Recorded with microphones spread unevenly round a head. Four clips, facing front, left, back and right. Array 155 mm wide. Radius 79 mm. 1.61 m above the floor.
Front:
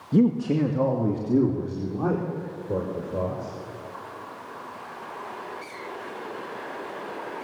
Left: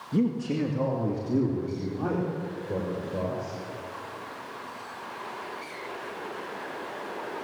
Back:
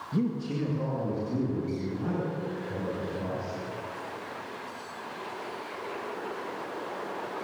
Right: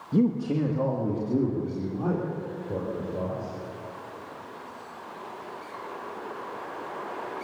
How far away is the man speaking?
About 1.7 m.